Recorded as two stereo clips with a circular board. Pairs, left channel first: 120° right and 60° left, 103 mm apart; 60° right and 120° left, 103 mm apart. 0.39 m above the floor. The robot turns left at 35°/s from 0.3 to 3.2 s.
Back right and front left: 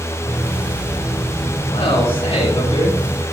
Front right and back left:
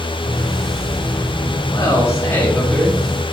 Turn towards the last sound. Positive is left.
turn(degrees=-160)